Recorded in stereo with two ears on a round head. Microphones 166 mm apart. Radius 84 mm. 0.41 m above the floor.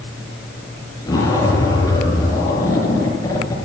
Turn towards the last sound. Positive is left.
turn(degrees=15)  # may be behind; listen again after turning